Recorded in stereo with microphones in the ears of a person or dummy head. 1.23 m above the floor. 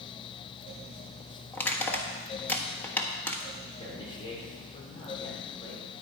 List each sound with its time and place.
1.5 s crushing: 10° left (ahead or behind), 1.3 m
3.8 s a man speaking: 30° left (ahead or behind), 4.5 m